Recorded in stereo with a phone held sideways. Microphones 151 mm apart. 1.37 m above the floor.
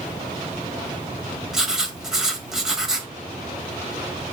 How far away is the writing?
About 1.4 m.